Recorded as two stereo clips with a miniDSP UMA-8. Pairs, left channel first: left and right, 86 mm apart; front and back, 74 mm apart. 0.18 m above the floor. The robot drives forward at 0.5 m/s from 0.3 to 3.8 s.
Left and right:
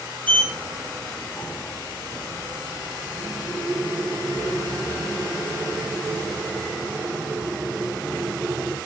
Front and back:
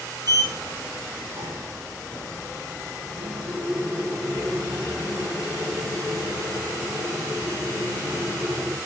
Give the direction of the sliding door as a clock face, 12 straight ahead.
7 o'clock.